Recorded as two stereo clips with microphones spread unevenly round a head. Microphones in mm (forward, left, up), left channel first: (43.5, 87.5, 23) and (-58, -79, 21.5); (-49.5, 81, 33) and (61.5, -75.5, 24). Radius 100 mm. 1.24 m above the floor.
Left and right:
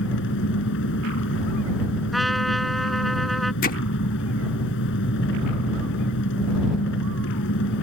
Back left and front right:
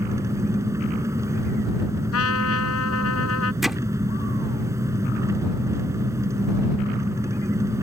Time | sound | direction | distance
0.0 | an engine running | 20° left | ?
2.1 | a trumpet | 150° left | ?
3.6 | hammering | 35° left | ?